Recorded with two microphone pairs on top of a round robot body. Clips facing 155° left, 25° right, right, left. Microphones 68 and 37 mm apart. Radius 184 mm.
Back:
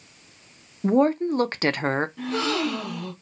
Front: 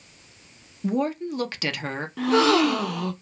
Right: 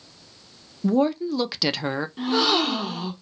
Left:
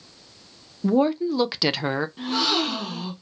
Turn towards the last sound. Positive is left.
turn(degrees=-15)